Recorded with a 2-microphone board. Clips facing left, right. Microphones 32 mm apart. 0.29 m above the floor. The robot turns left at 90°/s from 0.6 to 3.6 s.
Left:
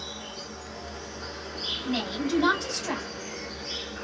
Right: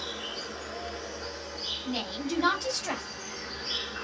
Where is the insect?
120° right, 0.9 m; by 4.0 s 30° right, 0.9 m.